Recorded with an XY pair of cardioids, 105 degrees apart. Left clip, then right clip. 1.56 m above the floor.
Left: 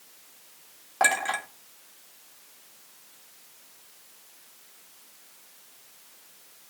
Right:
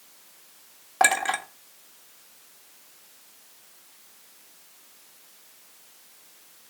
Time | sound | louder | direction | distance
1.0 | a clink | right 2 dB | 25° right | 1.9 m